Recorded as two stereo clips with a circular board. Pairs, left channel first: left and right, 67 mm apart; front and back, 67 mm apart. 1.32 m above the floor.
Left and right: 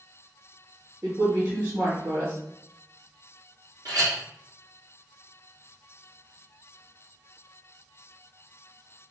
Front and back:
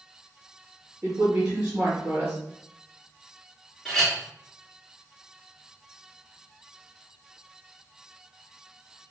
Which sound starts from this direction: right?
A clink, at 3.9 s.